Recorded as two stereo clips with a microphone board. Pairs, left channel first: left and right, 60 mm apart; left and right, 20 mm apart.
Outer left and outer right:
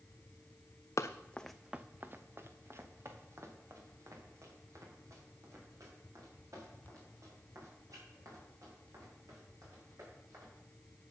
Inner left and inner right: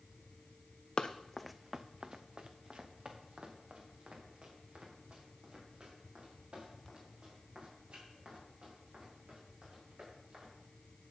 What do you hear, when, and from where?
1.0 s running footsteps: 55° left (ahead or behind), 0.5 m; by 10.5 s 65° right (ahead or behind), 8 m